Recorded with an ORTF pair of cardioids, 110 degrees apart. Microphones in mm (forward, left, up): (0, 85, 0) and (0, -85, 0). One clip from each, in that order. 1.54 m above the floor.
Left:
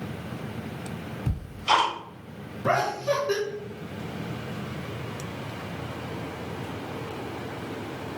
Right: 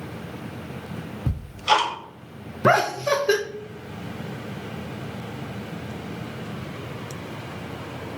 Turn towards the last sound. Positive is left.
turn(degrees=-50)